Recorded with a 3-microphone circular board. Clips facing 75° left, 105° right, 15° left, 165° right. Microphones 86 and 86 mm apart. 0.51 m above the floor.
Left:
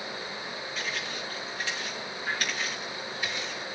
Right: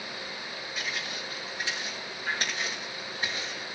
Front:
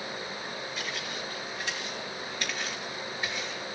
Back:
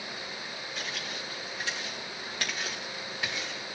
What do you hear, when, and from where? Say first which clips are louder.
0.8 s footsteps: even, front 2 dB; straight behind, 4.5 m; by 3.6 s 145° right, 2.5 m